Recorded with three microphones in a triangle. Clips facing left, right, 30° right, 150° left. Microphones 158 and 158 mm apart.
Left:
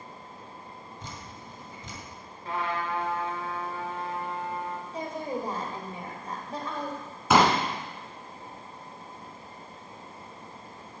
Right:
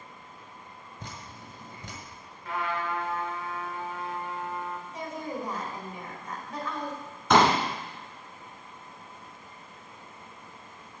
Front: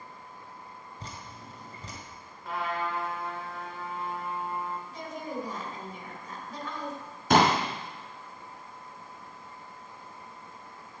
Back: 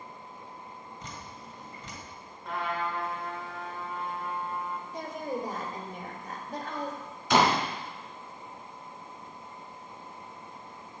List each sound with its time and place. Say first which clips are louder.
1.0 s dripping: right 2 dB, even; 80° right, 1.9 m
2.5 s a trumpet: left 1 dB, even; 55° left, 1.5 m
4.9 s a woman speaking: left 5 dB, back 3 dB; 135° left, 2 m
7.3 s a pop: even, front 2 dB; 5° left, 2.0 m